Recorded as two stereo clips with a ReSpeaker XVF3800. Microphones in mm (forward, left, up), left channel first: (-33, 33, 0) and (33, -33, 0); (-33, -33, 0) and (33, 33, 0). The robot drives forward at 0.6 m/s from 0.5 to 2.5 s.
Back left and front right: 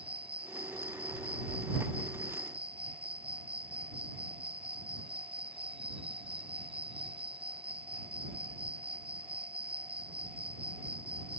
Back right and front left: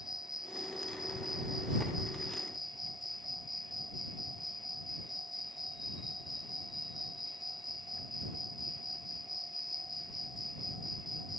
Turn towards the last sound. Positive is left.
turn(degrees=-45)